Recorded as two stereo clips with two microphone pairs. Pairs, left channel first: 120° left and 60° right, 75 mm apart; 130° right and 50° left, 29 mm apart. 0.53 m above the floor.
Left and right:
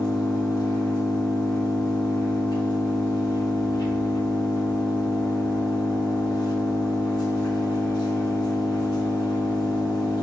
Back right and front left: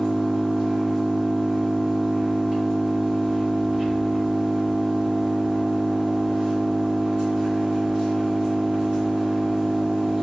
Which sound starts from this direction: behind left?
An engine running, at 0.0 s.